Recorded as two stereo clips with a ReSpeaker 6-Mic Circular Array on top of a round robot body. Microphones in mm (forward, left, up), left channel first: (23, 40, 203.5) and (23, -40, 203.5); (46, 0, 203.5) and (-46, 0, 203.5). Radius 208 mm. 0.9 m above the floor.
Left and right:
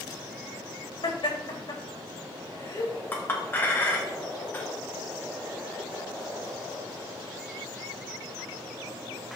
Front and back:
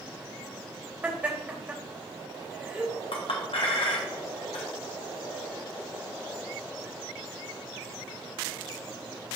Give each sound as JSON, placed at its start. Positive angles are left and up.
{"t": 1.0, "sound": "laughter", "azimuth_deg": 110, "distance_m": 2.5}
{"t": 3.1, "sound": "a clink", "azimuth_deg": 25, "distance_m": 1.5}